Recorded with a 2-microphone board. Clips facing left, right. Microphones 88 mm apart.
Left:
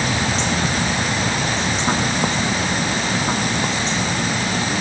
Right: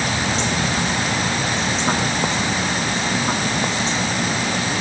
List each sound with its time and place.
Only background noise.